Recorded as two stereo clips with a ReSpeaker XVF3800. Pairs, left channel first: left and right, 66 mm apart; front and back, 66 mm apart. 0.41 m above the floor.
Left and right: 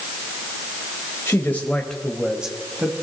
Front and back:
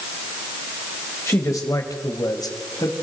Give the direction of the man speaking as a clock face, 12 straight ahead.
11 o'clock.